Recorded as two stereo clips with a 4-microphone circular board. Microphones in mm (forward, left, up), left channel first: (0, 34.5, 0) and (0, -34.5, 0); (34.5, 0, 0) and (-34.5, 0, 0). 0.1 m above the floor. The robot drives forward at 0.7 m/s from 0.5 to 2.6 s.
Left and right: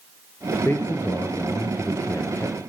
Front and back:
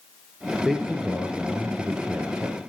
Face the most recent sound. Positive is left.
turn(degrees=140)